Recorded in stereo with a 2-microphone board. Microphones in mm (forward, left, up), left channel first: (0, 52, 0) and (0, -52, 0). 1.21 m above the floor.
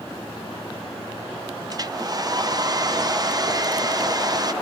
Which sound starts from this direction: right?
A hair dryer, at 1.7 s.